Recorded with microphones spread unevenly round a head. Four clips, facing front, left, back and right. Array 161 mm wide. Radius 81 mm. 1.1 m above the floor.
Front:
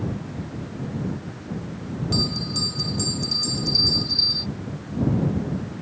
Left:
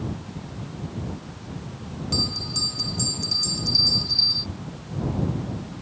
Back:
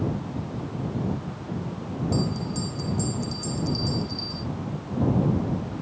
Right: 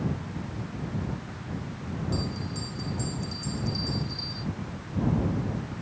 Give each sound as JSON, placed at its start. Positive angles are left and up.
{"t": 2.1, "sound": "a bell", "azimuth_deg": 20}